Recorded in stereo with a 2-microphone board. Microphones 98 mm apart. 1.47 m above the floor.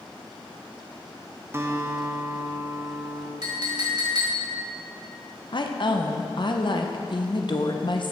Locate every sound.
1.5 s a guitar: 25° right (ahead or behind), 0.7 m
3.4 s a clink: 50° right (ahead or behind), 1.7 m
5.5 s a woman speaking: 55° left (ahead or behind), 0.7 m